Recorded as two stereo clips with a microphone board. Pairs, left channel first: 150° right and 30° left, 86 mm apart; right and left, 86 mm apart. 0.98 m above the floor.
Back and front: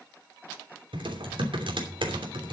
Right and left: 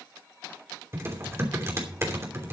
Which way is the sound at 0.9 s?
35° left.